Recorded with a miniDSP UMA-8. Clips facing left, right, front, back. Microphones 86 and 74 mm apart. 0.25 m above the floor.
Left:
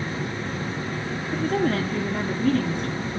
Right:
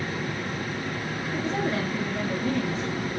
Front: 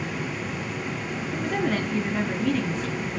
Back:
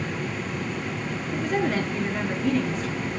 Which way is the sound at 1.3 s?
85° left.